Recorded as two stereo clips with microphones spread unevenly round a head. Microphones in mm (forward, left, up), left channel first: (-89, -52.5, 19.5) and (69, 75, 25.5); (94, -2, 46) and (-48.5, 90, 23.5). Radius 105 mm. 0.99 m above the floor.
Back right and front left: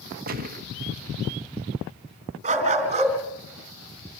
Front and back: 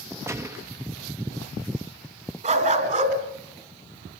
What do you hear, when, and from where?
0.3 s a gunshot: 80° left, 1.6 m
2.4 s a dog barking: 95° left, 3.5 m